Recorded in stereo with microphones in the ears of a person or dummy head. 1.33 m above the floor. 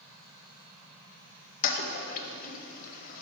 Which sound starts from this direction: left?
A toilet flushing, at 1.6 s.